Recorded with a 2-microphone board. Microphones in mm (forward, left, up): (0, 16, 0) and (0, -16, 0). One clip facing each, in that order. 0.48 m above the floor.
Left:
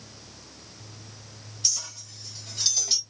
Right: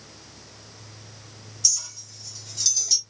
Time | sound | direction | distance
1.6 | a clink | 30° left (ahead or behind) | 1.3 m